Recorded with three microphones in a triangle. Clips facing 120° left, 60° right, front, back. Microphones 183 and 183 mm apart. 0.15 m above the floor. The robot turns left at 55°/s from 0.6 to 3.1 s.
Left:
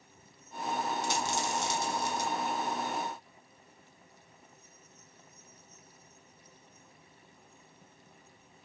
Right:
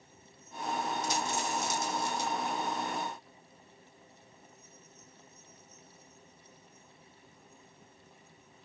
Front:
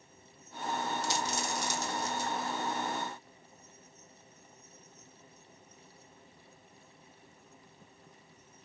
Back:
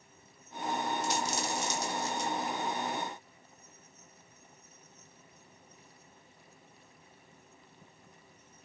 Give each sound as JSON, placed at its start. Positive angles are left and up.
{"t": 1.0, "sound": "a dropped coin", "azimuth_deg": 145, "distance_m": 1.7}